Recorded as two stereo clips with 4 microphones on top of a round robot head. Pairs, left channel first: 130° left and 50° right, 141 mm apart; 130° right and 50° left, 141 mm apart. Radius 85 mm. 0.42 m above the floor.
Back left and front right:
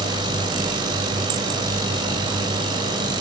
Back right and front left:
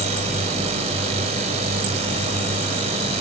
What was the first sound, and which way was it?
A drone, 10° left.